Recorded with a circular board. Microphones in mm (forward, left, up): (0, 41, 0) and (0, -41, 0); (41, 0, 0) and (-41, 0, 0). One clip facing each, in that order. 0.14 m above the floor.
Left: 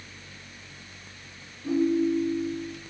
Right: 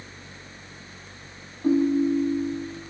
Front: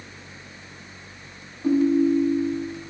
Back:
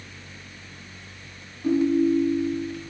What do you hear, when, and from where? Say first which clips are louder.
1.6 s a ringtone: right 3 dB, front 1 dB; 70° right, 3.5 m